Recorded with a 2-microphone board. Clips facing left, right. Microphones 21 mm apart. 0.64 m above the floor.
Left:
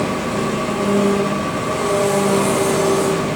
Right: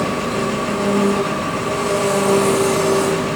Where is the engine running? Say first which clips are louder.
Even; centre (ahead or behind), 6 m.